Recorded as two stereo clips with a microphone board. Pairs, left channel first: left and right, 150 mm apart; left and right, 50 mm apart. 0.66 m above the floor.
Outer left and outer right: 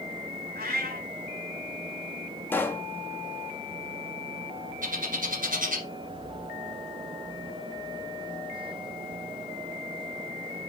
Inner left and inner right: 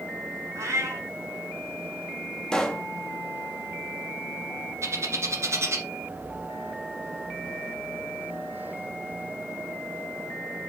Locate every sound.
0.6 s a cat meowing: 70° right (ahead or behind), 3 m
2.5 s a pop: 15° left (ahead or behind), 1.1 m
4.8 s a bird: 60° right (ahead or behind), 2 m